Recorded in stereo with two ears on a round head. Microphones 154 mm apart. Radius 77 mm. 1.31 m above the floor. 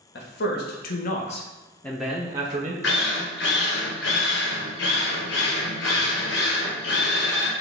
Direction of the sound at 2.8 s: 75° left (ahead or behind).